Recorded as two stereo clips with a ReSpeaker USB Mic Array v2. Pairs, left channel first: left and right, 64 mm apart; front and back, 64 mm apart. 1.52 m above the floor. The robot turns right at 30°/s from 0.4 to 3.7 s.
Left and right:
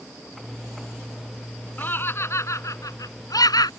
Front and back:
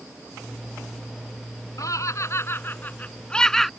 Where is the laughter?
30° left; by 3.7 s 85° left.